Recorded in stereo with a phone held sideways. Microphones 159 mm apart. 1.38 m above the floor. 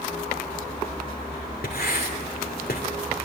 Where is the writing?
70° left (ahead or behind), 3 m.